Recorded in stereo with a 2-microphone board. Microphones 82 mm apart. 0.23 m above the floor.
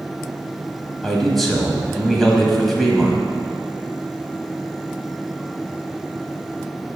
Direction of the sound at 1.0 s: Centre (ahead or behind).